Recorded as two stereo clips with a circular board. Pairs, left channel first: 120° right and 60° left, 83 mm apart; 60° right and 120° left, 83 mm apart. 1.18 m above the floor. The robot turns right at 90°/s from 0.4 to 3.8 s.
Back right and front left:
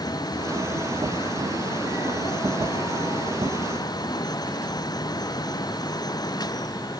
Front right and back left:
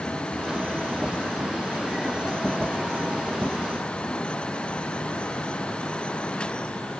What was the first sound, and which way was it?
Only background noise.